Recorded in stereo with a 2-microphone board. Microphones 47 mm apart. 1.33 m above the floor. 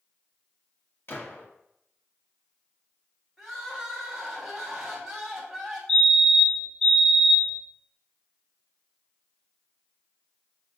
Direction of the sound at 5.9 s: 15° left (ahead or behind).